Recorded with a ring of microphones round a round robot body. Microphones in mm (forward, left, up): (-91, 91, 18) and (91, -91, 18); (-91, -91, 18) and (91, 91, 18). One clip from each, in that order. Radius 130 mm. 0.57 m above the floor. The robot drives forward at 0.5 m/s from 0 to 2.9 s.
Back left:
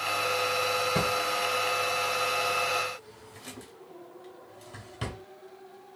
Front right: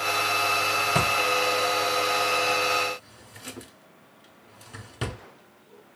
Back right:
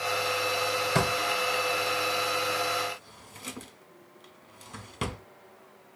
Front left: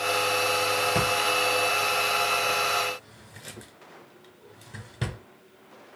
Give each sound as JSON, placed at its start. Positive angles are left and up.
{"t": 0.9, "sound": "a drawer", "azimuth_deg": -85, "distance_m": 1.3}